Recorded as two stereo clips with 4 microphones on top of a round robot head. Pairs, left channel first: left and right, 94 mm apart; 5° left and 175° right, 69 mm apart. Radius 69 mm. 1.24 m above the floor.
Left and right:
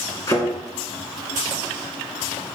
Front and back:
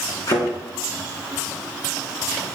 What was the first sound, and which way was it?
A thud, 40° left.